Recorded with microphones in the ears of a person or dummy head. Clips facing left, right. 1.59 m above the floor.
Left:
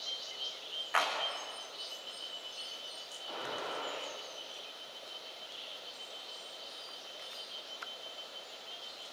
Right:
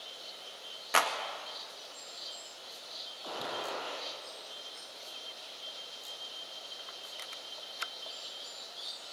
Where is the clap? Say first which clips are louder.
Right 3 dB; 45° right (ahead or behind), 1.9 m.